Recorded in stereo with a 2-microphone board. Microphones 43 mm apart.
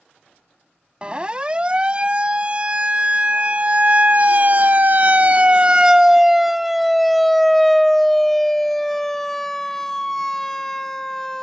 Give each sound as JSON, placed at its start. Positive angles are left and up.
{"t": 1.0, "sound": "a siren", "side_deg": -25}